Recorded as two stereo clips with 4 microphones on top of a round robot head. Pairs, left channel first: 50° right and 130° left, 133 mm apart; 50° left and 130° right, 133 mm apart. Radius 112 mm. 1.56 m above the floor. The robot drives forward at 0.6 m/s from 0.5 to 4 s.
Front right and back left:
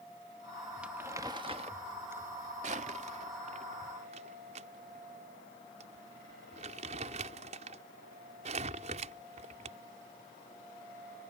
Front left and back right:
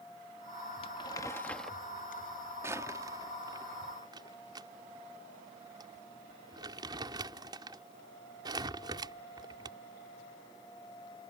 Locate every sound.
0.8 s crumpling: 55° left; by 9.8 s 170° left